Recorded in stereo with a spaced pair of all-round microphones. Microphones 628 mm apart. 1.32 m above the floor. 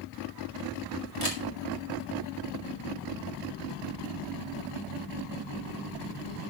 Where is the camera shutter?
80° left, 2.5 m.